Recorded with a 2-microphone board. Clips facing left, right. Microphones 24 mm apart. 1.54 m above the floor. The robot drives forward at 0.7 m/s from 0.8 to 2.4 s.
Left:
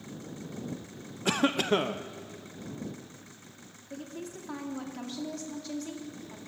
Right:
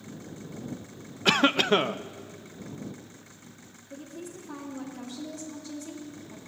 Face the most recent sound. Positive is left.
turn(degrees=40)  # may be behind; listen again after turning